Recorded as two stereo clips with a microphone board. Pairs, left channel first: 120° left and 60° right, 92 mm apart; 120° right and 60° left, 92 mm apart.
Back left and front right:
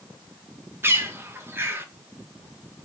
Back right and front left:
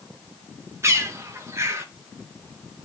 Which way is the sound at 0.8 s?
5° left.